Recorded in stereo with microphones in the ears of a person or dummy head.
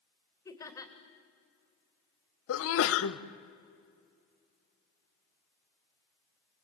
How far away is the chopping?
No chopping in this recording.